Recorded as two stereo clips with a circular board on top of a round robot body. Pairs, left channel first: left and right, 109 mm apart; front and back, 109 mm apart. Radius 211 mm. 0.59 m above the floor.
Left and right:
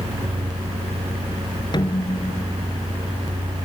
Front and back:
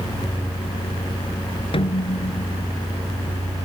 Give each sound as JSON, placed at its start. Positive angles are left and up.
{"t": 1.7, "sound": "a snare drum", "azimuth_deg": 40}